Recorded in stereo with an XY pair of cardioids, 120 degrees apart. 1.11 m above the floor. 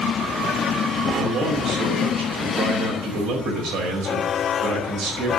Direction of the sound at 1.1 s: 60° right.